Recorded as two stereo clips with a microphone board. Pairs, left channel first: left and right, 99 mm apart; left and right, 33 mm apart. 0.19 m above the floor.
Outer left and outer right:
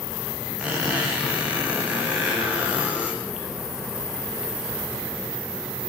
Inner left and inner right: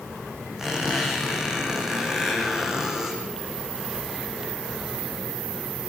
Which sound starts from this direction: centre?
A squeak, at 0.6 s.